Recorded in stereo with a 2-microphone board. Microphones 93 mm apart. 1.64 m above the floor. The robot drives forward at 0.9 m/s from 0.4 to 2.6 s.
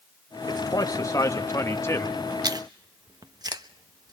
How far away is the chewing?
About 1.1 m.